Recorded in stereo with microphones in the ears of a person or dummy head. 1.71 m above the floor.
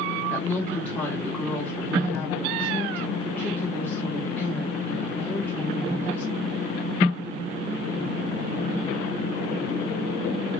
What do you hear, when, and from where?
0.3 s a woman speaking: 10° left (ahead or behind), 1.5 m